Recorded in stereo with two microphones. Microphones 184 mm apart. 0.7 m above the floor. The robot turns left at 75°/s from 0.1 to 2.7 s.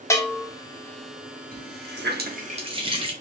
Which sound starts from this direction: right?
A running tap, at 1.5 s.